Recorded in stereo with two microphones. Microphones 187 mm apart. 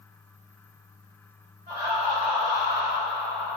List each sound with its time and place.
1.7 s laughter: 35° right (ahead or behind), 1.5 m; by 3.6 s 5° left (ahead or behind), 1.2 m